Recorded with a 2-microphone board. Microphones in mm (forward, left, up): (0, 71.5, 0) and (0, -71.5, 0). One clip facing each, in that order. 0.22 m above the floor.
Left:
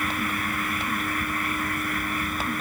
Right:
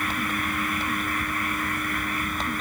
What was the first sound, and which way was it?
Only background noise.